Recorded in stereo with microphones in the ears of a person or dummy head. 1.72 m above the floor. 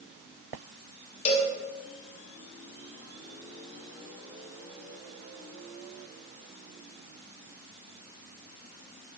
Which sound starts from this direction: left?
A cowbell, at 1.2 s.